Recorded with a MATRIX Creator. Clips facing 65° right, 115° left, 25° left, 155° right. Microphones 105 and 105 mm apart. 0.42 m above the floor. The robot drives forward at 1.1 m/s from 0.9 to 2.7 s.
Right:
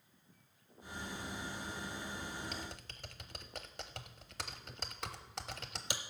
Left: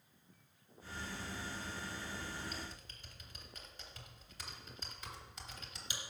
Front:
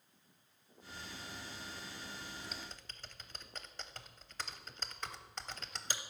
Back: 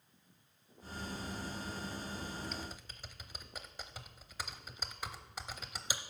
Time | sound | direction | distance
2.4 | typing on a keyboard | 60° right | 0.9 m